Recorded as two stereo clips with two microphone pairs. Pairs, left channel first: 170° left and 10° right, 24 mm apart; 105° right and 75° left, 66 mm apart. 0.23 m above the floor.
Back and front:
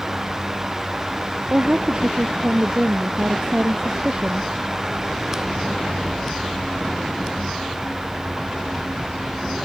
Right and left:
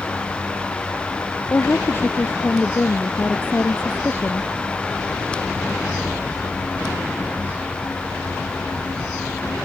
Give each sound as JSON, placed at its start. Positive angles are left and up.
{"t": 1.5, "sound": "a woman speaking", "azimuth_deg": -50}